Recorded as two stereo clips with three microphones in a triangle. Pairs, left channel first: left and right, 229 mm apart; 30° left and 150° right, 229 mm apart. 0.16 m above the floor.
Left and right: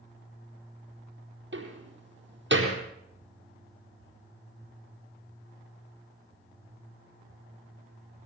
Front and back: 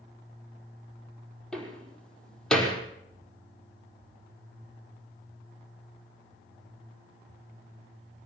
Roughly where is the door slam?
Ahead right.